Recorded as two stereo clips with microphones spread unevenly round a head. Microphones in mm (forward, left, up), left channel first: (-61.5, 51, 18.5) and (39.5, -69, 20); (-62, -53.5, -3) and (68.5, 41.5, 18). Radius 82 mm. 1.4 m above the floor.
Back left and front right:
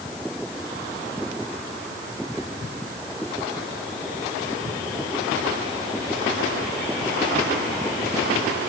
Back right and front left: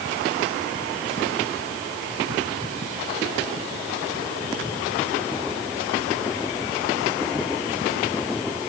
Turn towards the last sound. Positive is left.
No sound to turn to.